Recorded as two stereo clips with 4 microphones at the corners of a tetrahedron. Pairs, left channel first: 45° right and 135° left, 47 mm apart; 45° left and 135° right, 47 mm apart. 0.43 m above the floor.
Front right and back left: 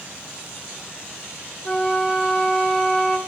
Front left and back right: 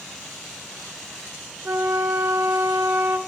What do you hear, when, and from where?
1.6 s a flute: 125° right, 0.5 m